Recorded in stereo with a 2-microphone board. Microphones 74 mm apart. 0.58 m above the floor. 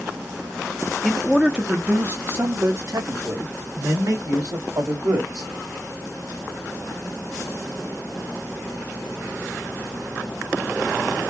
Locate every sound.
1.0 s a man speaking: 10° left (ahead or behind), 0.7 m; by 5.5 s 70° right (ahead or behind), 2.5 m